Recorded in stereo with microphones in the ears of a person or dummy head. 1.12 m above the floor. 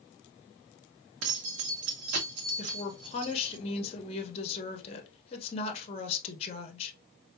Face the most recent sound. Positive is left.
turn(degrees=35)  # may be behind; listen again after turning